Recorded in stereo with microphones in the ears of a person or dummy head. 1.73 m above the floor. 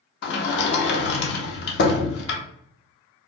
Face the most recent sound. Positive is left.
turn(degrees=60)  # may be behind; listen again after turning